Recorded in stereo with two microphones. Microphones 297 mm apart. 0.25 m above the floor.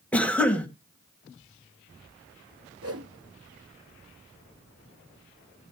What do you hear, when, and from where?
0.1 s a cough: 5° left (ahead or behind), 1.5 m
2.8 s a whoosh: 55° right (ahead or behind), 1.0 m